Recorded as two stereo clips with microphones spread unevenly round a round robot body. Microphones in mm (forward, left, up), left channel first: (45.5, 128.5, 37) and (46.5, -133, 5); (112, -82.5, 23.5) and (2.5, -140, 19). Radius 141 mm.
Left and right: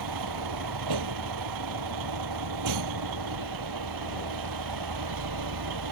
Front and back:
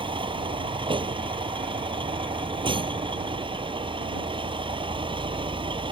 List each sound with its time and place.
0.0 s a vehicle: 105° right